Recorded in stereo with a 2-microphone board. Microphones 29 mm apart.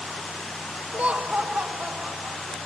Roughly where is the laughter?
Right.